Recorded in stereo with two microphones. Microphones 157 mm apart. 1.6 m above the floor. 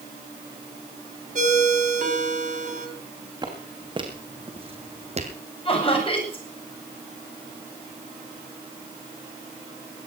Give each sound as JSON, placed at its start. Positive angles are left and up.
{"t": 1.4, "sound": "a ringtone", "side_deg": -55, "distance_m": 4.0}
{"t": 3.4, "sound": "footsteps", "side_deg": -25, "distance_m": 4.5}
{"t": 5.7, "sound": "laughter", "side_deg": 35, "distance_m": 8.5}